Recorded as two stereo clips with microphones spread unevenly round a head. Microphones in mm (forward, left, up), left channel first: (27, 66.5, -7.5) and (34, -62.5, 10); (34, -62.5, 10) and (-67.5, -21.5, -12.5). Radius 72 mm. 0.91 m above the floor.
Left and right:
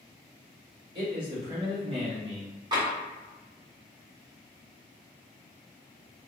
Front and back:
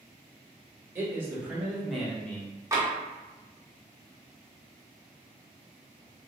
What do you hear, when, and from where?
0.9 s a man speaking: 145° right, 1.4 m; by 2.5 s 100° right, 0.9 m
2.7 s tapping: 150° right, 1.2 m